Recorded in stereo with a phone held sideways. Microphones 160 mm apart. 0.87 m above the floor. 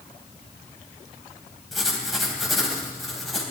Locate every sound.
1.7 s writing: centre (ahead or behind), 3.5 m